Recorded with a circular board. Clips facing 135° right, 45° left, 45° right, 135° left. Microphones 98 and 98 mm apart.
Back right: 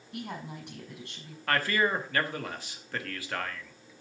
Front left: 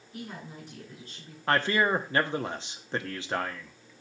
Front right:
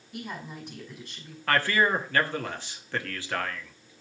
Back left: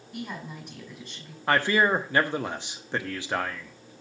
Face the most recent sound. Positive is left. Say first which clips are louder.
# front left 2 dB, back left 2 dB
turn(degrees=85)